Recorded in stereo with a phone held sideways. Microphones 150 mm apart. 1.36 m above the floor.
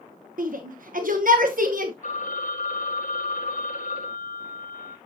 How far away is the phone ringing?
About 2.5 m.